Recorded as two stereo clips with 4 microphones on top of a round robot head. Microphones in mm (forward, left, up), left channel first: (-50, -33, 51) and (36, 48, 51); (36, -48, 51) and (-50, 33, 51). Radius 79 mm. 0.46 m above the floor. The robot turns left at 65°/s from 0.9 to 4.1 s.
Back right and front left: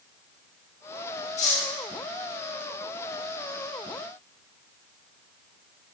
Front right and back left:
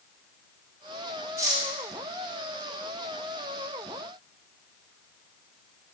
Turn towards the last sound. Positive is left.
turn(degrees=25)